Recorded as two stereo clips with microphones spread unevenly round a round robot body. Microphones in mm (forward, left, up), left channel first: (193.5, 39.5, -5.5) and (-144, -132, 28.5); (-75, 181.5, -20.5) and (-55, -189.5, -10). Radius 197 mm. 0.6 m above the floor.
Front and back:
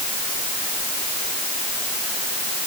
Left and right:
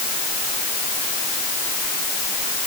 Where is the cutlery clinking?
I don't hear cutlery clinking.